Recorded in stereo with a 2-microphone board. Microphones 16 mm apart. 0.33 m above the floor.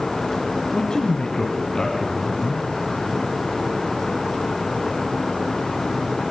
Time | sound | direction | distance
0.7 | a man speaking | 65° left (ahead or behind) | 3 m